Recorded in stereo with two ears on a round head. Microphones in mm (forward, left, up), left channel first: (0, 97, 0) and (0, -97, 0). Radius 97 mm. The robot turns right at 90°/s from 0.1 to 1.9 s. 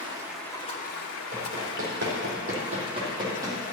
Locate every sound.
0.0 s running water: 25° right, 1.0 m; by 3.7 s 140° left, 1.0 m
1.3 s running footsteps: 5° right (ahead or behind), 3.5 m; by 3.6 s 10° right (ahead or behind), 2.5 m